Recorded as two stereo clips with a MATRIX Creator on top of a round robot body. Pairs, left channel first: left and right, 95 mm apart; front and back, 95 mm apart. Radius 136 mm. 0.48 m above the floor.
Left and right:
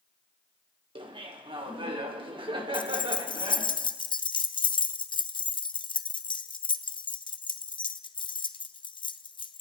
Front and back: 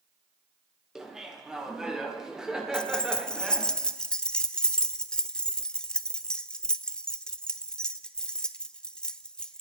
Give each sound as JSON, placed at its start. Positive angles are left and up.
{"t": 0.9, "sound": "laughter", "azimuth_deg": -100, "distance_m": 2.5}
{"t": 2.7, "sound": "keys jangling", "azimuth_deg": 80, "distance_m": 0.7}